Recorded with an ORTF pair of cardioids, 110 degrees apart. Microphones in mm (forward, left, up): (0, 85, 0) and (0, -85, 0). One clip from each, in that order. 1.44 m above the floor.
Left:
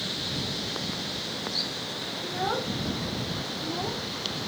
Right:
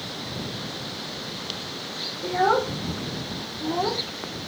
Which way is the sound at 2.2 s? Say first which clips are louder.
Right 9 dB; 40° right.